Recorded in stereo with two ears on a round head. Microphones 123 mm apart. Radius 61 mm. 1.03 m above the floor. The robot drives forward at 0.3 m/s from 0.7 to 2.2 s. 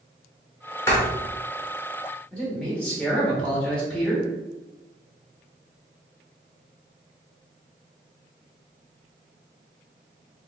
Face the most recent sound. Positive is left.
turn(degrees=10)  # may be behind; listen again after turning